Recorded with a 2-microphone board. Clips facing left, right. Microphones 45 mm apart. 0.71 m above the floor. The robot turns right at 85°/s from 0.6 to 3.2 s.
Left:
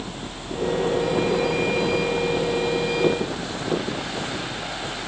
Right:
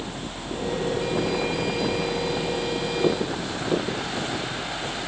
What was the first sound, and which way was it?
Only background noise.